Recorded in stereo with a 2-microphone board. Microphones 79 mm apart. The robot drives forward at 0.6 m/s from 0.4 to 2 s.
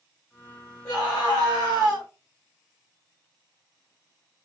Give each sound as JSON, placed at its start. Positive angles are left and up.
{"t": 0.8, "sound": "a scream", "side_deg": 45, "distance_m": 2.5}